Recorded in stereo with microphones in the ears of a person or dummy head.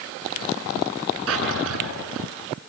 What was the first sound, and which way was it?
A drawer, 80° right.